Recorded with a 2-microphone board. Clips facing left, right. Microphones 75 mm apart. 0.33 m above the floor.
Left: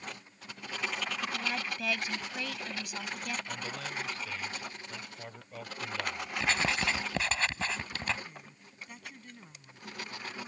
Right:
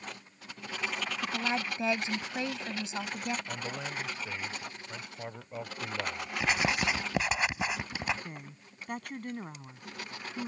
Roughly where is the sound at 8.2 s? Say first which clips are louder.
Right 4 dB; right.